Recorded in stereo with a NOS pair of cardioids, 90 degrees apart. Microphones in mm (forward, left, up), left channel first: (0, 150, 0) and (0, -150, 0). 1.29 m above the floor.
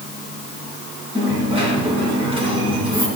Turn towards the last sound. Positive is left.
turn(degrees=-20)